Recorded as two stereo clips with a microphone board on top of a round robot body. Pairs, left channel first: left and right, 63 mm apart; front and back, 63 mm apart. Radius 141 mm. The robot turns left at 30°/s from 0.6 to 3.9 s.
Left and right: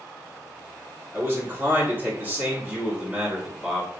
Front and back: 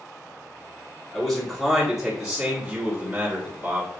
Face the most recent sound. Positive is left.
turn(degrees=-160)